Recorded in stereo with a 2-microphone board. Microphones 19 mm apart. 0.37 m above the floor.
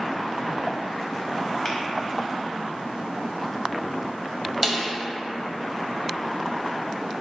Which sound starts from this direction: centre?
A snare drum, at 4.6 s.